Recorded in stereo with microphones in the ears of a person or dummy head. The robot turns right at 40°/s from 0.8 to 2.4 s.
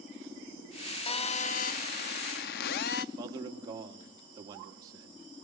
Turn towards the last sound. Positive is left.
turn(degrees=-25)  # may be behind; listen again after turning